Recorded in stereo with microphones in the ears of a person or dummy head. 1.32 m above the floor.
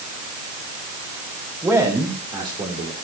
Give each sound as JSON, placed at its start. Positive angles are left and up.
{"t": 1.6, "sound": "a man speaking", "side_deg": -15, "distance_m": 4.0}